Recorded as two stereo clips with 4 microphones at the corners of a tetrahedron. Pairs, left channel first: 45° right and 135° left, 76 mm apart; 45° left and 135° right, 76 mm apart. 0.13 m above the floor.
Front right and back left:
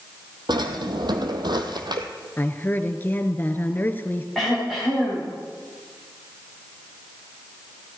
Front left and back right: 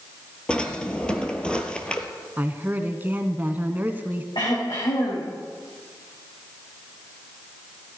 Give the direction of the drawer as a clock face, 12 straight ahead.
8 o'clock.